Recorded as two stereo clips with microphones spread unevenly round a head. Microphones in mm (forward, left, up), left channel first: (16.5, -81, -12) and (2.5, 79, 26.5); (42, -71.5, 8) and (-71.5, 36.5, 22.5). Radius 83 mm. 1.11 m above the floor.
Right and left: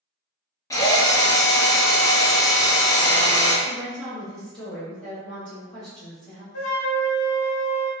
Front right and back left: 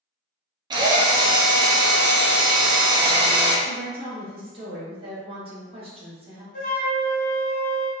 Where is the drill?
160° right, 0.7 m.